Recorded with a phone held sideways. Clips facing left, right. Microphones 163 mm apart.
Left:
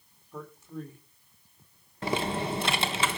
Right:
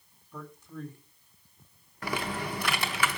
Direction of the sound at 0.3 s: 5° left (ahead or behind).